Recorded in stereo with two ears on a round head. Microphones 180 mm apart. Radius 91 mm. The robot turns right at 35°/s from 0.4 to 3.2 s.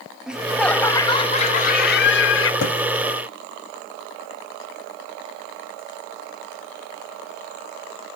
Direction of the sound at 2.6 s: 80° left.